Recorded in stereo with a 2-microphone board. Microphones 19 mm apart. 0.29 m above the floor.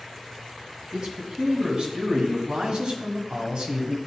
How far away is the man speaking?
About 2 m.